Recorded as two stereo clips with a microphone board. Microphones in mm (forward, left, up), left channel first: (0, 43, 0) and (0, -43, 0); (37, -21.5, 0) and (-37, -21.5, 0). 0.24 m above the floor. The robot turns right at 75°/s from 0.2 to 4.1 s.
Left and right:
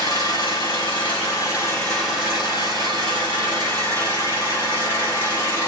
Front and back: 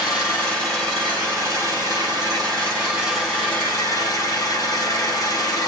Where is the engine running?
45° left, 4 m; by 5.7 s 20° right, 4 m.